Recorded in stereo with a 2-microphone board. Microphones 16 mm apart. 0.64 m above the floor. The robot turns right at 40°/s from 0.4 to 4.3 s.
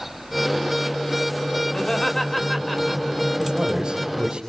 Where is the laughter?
35° left (ahead or behind), 3 m; by 3.3 s 25° right (ahead or behind), 3 m.